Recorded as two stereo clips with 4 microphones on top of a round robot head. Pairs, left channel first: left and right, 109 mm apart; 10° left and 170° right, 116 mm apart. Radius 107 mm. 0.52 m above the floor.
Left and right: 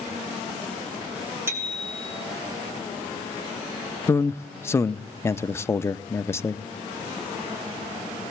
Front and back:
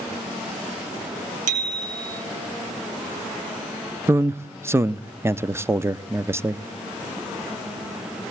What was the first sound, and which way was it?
A bicycle bell, 165° right.